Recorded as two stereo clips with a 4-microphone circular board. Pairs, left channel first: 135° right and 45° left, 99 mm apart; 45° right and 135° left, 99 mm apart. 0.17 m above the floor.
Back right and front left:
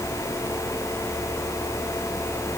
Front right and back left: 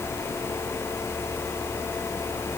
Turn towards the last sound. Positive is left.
No sound to turn to.